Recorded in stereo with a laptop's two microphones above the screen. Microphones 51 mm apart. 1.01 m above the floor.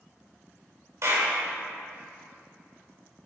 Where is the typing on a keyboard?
No typing on a keyboard in this recording.